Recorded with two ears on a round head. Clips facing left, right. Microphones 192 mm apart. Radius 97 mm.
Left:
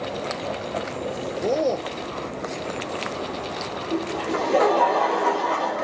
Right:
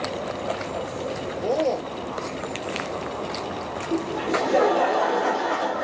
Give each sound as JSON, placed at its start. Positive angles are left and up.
{"t": 1.4, "sound": "a man speaking", "side_deg": 20, "distance_m": 0.8}
{"t": 3.9, "sound": "laughter", "side_deg": -15, "distance_m": 1.4}